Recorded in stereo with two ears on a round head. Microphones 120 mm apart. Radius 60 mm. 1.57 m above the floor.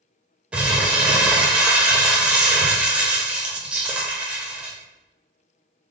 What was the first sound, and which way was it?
Crumpling, 10° right (ahead or behind).